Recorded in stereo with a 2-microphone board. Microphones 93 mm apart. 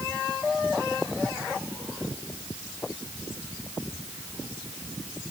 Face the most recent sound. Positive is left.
No sound to turn to.